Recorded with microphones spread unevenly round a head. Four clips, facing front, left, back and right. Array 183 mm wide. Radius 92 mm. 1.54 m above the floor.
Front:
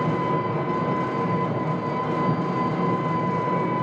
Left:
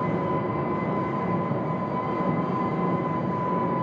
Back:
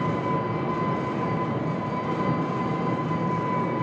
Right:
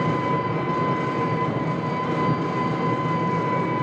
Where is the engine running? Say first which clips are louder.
Right 3 dB, front 2 dB; 70° right, 6.5 m.